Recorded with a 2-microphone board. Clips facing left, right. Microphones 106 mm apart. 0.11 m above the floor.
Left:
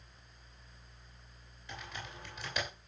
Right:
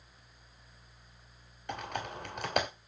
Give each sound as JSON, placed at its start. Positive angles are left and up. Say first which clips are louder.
{"t": 1.7, "sound": "typing on a keyboard", "louder": "right 9 dB", "side_deg": -55, "distance_m": 2.5}